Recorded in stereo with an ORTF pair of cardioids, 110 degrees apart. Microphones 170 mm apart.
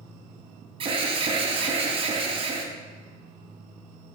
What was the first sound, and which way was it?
An alarm, 35° right.